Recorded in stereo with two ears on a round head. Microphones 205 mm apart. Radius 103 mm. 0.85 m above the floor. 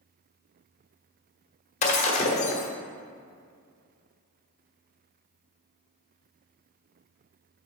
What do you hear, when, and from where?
1.8 s breaking glass: 30° left (ahead or behind), 1.2 m